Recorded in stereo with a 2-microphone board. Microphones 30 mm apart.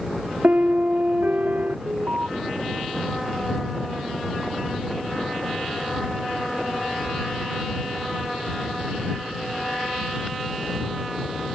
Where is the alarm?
70° right (ahead or behind).